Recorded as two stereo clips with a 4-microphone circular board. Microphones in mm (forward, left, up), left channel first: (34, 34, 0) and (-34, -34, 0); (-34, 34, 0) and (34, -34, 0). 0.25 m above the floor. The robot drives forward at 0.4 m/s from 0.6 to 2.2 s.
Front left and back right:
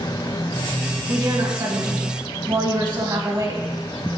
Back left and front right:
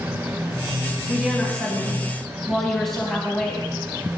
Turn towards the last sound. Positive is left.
turn(degrees=-140)